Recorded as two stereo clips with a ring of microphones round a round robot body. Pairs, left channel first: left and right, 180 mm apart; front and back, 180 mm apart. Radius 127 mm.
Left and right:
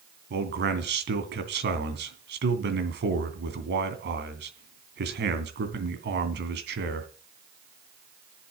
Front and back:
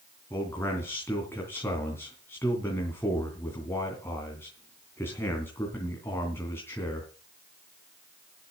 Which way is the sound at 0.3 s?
80° right.